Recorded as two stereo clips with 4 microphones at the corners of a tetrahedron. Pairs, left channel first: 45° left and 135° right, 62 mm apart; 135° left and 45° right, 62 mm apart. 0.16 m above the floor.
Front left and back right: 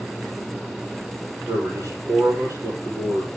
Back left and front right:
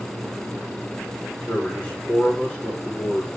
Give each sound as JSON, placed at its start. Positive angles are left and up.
{"t": 1.5, "sound": "a man speaking", "azimuth_deg": -150, "distance_m": 6.0}